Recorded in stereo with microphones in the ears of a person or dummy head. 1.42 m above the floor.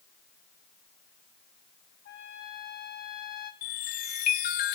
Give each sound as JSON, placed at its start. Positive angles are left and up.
{"t": 2.0, "sound": "a trumpet", "side_deg": 70, "distance_m": 4.0}
{"t": 3.6, "sound": "a chime", "side_deg": 45, "distance_m": 1.2}